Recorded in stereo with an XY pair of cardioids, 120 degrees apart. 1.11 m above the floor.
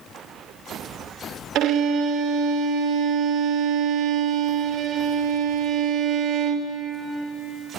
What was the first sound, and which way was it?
A violin, 60° right.